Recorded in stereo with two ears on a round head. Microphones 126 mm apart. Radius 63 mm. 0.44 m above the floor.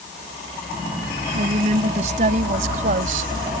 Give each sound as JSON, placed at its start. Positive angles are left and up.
{"t": 1.3, "sound": "a woman speaking", "side_deg": -50}